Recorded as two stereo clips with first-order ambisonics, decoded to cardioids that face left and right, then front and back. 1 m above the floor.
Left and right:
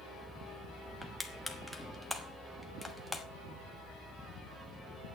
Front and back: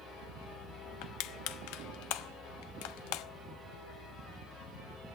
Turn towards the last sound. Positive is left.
turn(degrees=0)